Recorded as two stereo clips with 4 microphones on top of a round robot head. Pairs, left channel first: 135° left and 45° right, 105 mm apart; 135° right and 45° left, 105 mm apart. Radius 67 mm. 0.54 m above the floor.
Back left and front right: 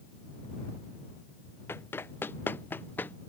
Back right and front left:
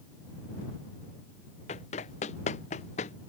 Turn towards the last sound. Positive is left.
turn(degrees=-155)